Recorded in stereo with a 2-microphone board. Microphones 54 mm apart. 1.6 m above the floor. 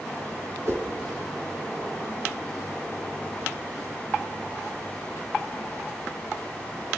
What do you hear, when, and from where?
0.7 s a whoosh: 60° right (ahead or behind), 5.5 m